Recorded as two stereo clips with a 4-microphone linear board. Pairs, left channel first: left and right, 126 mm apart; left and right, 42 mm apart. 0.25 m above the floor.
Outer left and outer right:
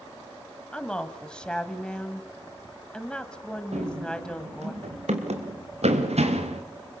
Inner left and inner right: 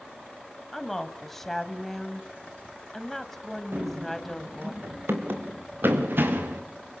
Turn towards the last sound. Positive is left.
turn(degrees=-55)  # may be behind; listen again after turning